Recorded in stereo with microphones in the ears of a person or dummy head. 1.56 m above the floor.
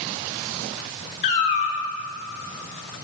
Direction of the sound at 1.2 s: 25° left (ahead or behind).